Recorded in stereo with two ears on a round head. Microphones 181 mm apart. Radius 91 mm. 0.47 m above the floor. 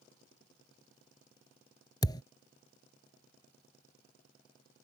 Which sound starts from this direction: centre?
A thud, at 2.0 s.